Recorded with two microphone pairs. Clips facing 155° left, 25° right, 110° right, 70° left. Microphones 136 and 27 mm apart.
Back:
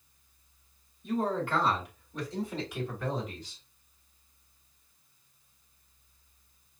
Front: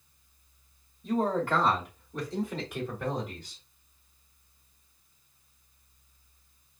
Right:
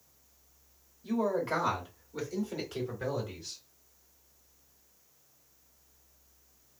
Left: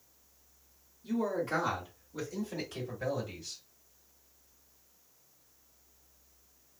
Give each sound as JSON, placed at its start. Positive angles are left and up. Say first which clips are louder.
{"t": 1.0, "sound": "a man speaking", "louder": "front 3 dB, right 2 dB", "azimuth_deg": -55, "distance_m": 2.0}